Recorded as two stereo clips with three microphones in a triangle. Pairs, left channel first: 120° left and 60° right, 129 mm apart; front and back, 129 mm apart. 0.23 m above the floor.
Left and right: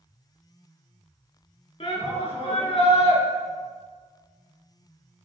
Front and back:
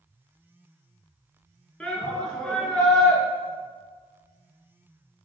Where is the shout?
85° left, 3 m.